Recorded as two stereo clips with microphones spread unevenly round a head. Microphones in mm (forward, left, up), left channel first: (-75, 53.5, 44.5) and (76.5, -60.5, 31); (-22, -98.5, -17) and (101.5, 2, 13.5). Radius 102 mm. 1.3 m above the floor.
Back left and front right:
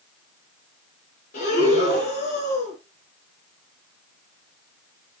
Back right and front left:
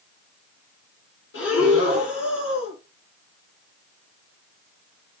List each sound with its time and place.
1.3 s breathing: 165° right, 7 m